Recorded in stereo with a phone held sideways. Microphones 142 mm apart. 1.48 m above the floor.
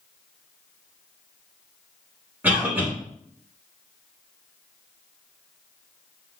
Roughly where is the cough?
Centre.